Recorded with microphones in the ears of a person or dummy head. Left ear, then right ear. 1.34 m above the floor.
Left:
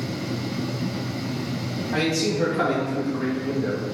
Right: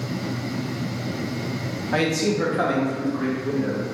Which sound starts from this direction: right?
A man speaking, at 1.9 s.